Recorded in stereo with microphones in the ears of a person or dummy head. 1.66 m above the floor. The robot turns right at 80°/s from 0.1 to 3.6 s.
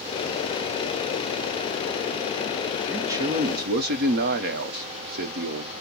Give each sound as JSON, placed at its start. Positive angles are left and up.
{"t": 2.9, "sound": "a man speaking", "azimuth_deg": 180, "distance_m": 0.8}